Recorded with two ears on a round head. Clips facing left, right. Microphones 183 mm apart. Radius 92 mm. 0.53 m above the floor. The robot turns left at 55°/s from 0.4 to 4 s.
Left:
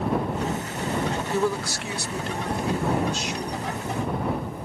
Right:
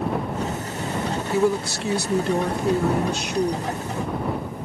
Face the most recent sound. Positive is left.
turn(degrees=-155)